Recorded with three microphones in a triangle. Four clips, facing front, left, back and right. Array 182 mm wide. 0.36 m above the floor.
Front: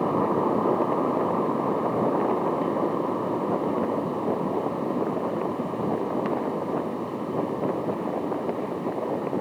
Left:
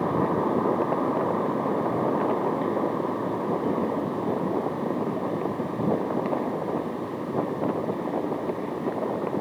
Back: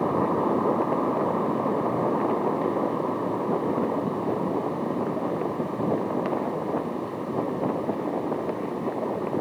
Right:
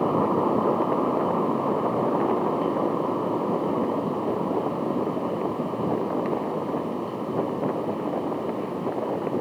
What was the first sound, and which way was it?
Only background noise.